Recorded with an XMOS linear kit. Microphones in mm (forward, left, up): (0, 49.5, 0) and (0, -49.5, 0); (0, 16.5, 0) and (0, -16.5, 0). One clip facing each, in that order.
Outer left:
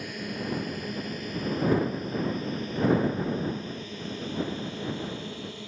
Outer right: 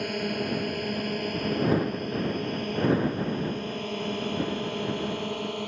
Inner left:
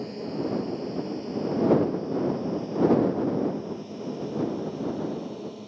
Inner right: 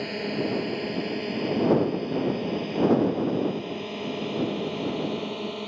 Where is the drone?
60° right (ahead or behind); by 5.7 s 65° right (ahead or behind).